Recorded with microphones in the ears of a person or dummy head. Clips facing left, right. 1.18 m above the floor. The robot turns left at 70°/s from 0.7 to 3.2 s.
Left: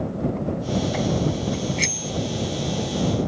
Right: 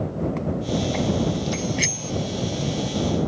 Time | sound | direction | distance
1.5 | a bicycle bell | 25° right (ahead or behind) | ?